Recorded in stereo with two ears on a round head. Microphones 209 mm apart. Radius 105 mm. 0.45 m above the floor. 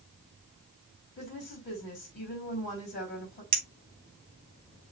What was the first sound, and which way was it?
A woman speaking, 45° left (ahead or behind).